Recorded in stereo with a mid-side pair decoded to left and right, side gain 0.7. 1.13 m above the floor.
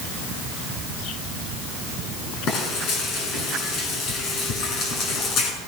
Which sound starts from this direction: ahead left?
Frying, at 2.5 s.